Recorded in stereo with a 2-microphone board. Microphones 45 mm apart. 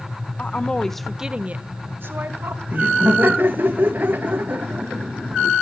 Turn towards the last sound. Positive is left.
turn(degrees=-50)  # may be behind; listen again after turning